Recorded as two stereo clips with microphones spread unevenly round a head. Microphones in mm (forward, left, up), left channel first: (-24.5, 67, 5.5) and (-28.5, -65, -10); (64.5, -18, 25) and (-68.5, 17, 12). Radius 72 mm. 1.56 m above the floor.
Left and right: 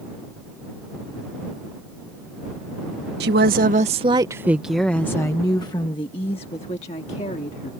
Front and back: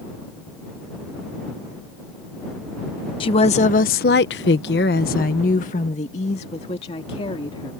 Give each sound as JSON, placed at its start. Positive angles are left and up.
{"t": 3.2, "sound": "a woman speaking", "azimuth_deg": -70}